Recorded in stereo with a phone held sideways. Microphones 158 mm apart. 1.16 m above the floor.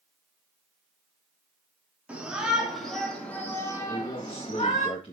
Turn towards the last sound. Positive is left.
turn(degrees=40)  # may be behind; listen again after turning